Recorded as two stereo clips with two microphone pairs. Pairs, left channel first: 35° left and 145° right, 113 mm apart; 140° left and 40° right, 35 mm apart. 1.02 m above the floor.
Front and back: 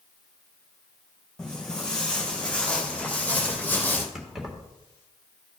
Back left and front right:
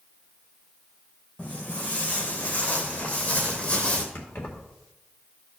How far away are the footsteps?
About 3 m.